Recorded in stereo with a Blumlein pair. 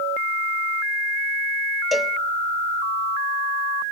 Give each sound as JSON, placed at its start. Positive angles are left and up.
{"t": 1.9, "sound": "a cowbell", "azimuth_deg": 5, "distance_m": 0.7}